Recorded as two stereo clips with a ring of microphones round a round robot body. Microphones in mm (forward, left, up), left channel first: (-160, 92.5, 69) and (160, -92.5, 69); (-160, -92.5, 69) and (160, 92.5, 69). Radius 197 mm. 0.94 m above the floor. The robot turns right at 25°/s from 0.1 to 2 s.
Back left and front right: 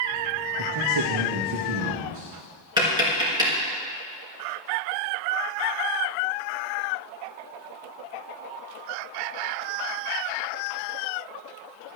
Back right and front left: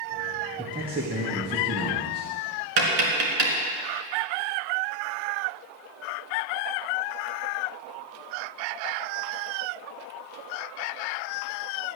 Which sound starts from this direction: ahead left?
Tapping, at 2.8 s.